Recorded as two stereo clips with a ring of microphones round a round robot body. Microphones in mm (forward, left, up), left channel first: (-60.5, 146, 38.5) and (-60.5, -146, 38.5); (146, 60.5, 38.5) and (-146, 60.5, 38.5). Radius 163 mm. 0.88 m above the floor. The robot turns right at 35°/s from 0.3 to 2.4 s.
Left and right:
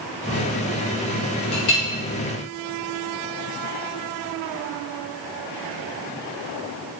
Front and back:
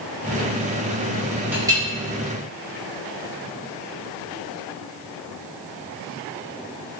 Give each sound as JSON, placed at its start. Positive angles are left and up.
{"t": 1.5, "sound": "a clink", "azimuth_deg": 95, "distance_m": 0.9}